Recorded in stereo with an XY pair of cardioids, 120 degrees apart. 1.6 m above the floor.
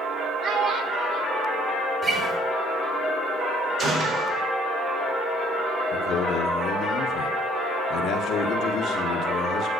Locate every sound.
0.4 s a child speaking: 60° right, 1.8 m
2.0 s a guitar: 35° right, 3.5 m
3.8 s a gunshot: 45° right, 5 m
5.9 s a man speaking: 65° left, 1.5 m